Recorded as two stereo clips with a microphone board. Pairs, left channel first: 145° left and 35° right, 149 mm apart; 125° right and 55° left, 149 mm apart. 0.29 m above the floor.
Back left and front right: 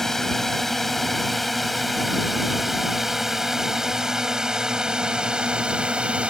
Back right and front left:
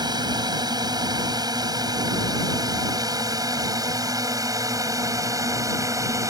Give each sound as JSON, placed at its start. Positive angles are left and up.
{"t": 0.0, "sound": "a drone", "azimuth_deg": 60}